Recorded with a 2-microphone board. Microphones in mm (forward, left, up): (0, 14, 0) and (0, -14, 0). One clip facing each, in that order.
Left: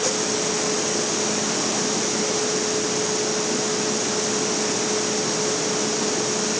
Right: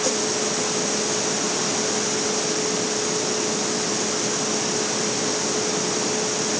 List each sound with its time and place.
Only background noise.